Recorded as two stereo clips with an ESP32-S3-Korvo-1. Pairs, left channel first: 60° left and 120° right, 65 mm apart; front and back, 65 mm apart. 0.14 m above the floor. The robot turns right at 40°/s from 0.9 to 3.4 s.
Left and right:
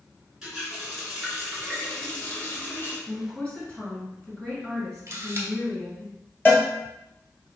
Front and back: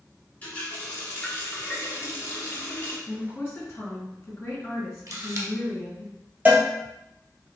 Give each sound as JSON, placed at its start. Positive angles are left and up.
{"t": 0.4, "sound": "a running tap", "azimuth_deg": -45, "distance_m": 1.2}
{"t": 3.1, "sound": "a woman speaking", "azimuth_deg": -15, "distance_m": 1.7}
{"t": 5.1, "sound": "a camera shutter", "azimuth_deg": -160, "distance_m": 1.0}
{"t": 6.5, "sound": "a cowbell", "azimuth_deg": 115, "distance_m": 1.1}